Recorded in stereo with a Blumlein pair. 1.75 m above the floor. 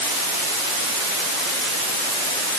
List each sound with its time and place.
Only background noise.